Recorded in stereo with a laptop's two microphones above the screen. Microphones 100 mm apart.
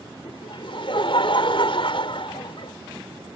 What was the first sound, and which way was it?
Laughter, 65° left (ahead or behind).